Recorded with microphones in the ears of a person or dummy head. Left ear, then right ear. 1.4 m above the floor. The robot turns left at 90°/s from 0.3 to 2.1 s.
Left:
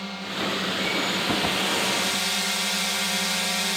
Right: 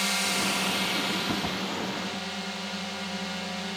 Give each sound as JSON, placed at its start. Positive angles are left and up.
{"t": 0.0, "sound": "a drone", "azimuth_deg": -105}